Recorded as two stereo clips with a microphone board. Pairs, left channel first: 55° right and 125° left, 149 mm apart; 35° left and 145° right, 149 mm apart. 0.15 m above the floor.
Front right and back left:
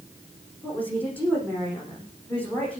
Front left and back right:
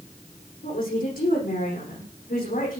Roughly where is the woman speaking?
Ahead left.